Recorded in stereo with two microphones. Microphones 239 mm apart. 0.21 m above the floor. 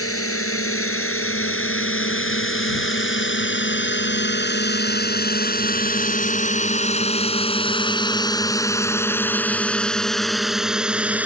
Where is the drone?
70° left (ahead or behind); by 11.3 s 5° right (ahead or behind).